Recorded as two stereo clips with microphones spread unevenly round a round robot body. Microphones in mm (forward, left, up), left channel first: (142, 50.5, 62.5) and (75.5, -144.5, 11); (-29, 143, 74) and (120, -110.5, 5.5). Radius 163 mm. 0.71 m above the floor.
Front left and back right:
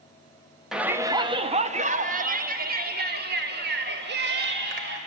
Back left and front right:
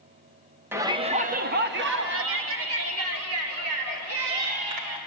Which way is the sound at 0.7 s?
70° right.